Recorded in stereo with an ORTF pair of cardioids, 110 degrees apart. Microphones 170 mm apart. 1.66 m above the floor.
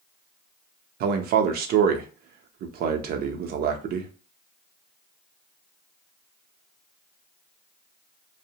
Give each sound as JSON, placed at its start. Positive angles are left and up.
{"t": 1.0, "sound": "a man speaking", "azimuth_deg": -70, "distance_m": 0.6}